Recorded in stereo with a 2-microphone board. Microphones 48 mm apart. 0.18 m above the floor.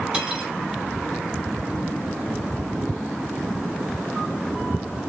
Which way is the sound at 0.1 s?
20° right (ahead or behind).